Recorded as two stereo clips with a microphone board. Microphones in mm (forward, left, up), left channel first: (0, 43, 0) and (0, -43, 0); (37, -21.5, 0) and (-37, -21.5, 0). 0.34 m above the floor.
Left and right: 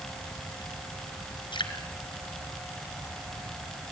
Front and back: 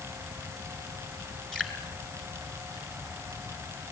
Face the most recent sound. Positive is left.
turn(degrees=85)